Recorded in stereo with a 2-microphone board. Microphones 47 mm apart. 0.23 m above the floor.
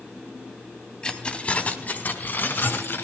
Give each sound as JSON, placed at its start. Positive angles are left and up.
{"t": 1.0, "sound": "keys jangling", "side_deg": 15, "distance_m": 1.1}